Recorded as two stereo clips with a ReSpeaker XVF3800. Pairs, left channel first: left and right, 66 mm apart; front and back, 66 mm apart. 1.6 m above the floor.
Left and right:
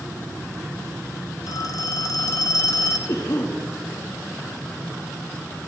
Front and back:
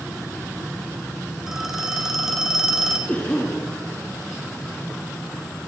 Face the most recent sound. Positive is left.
turn(degrees=65)